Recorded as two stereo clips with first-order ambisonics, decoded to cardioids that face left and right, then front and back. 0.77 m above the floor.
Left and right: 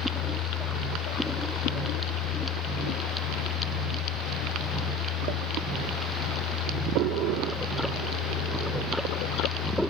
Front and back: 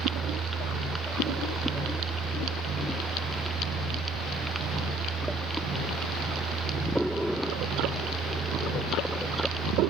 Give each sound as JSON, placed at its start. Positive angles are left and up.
{"t": 0.0, "sound": "a helicopter", "azimuth_deg": 115}